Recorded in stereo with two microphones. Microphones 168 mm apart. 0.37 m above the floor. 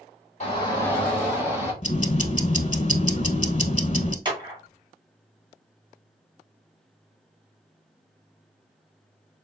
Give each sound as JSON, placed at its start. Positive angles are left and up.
{"t": 0.4, "sound": "a shout", "side_deg": 40, "distance_m": 1.4}
{"t": 1.8, "sound": "ticking", "side_deg": 45, "distance_m": 0.7}
{"t": 4.2, "sound": "a clap", "side_deg": -30, "distance_m": 1.7}